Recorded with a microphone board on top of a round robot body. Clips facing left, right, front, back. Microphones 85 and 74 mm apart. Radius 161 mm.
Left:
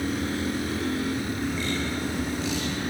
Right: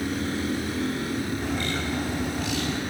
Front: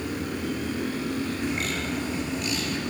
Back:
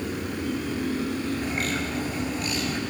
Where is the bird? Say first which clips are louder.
Even, back 1 dB; 130° right, 5 m.